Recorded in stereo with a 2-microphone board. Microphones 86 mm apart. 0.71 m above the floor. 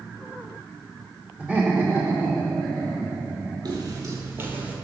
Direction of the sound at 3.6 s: 50° right (ahead or behind).